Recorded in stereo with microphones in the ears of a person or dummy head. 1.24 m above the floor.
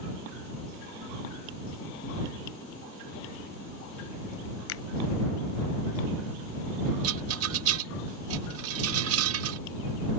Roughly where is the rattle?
Right.